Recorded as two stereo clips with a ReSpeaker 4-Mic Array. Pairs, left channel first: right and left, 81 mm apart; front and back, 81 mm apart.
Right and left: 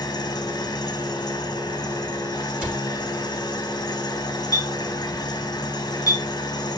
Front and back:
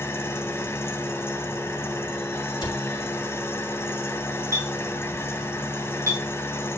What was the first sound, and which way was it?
An engine running, 60° right.